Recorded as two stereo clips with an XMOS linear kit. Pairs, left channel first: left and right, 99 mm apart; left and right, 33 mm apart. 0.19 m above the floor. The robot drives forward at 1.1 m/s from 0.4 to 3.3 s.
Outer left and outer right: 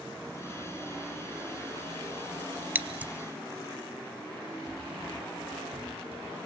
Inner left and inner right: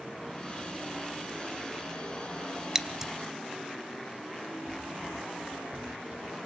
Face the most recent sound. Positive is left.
turn(degrees=-70)  # may be behind; listen again after turning